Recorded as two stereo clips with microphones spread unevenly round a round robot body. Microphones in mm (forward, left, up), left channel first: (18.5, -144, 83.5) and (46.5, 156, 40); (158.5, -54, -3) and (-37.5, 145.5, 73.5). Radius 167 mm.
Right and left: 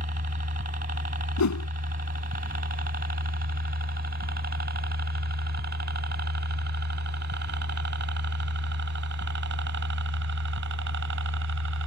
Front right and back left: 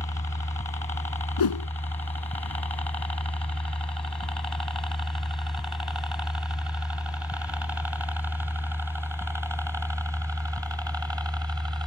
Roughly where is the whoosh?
Ahead right.